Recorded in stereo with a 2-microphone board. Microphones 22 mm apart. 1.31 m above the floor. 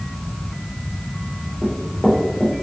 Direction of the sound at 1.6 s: 10° left (ahead or behind).